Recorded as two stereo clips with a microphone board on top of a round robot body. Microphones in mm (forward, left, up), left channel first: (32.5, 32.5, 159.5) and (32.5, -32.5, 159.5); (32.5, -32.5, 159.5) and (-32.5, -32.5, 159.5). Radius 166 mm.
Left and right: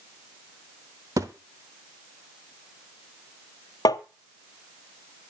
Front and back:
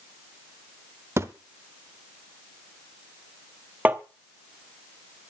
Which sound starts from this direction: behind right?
A thud, at 1.2 s.